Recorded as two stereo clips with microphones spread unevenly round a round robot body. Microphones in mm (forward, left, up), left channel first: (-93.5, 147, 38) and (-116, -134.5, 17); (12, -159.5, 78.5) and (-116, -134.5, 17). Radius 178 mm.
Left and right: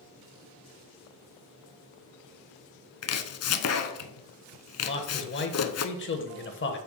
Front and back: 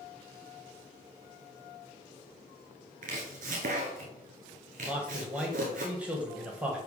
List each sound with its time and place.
3.0 s chopping: 125° left, 0.7 m
4.8 s a man speaking: 120° left, 1.2 m